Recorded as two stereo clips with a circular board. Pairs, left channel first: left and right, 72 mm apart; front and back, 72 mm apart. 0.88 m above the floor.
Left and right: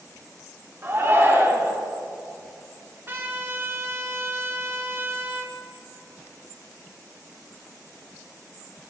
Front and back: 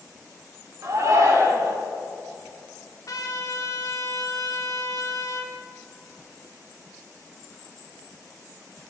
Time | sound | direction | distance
0.8 | a shout | 140° right | 2 m
3.1 | a trumpet | 35° right | 1.4 m